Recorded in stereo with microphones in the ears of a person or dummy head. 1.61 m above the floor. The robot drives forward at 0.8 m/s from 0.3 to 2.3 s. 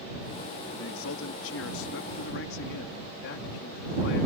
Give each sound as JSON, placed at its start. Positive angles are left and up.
{"t": 0.8, "sound": "a man speaking", "side_deg": 80}